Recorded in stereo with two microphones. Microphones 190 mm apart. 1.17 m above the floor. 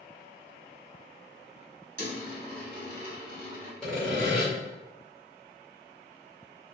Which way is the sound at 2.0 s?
50° right (ahead or behind).